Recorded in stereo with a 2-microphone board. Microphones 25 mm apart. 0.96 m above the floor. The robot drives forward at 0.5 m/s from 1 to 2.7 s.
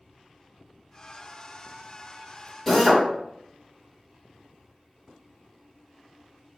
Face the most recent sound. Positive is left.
turn(degrees=5)  # may be behind; listen again after turning